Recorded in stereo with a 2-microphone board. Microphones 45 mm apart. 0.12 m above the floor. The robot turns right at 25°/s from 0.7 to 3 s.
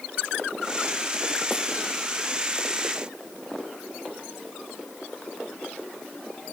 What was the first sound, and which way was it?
Only background noise.